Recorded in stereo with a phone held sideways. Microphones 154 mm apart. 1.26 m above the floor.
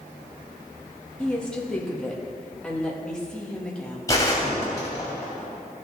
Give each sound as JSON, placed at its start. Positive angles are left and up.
{"t": 1.2, "sound": "a woman speaking", "side_deg": 5, "distance_m": 1.8}
{"t": 4.1, "sound": "a gunshot", "side_deg": 20, "distance_m": 3.0}